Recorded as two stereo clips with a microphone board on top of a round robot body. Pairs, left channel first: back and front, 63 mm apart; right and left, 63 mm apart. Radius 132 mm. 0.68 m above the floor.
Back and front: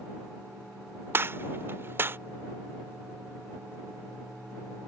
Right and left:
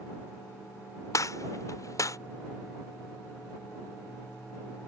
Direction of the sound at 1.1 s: 55° right.